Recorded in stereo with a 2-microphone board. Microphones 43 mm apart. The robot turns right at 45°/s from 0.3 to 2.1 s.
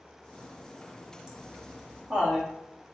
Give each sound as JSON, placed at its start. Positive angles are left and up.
{"t": 1.3, "sound": "laughter", "side_deg": -10, "distance_m": 0.8}